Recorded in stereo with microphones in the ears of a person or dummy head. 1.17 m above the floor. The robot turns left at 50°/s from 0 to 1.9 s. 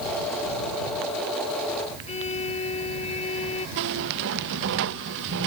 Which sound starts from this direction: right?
A squeak, at 3.8 s.